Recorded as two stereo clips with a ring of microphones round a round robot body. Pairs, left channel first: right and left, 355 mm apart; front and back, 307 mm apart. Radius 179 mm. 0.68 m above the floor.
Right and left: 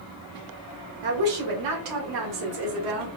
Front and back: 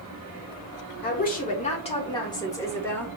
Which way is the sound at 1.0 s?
60° left.